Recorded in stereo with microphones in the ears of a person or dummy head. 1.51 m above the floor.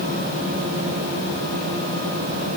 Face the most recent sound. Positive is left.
No sound to turn to.